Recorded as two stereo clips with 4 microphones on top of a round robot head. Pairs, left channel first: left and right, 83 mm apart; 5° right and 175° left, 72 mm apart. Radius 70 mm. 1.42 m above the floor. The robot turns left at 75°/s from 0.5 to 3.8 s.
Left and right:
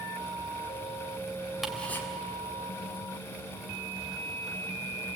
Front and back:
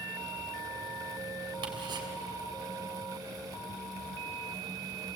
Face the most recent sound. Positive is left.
turn(degrees=20)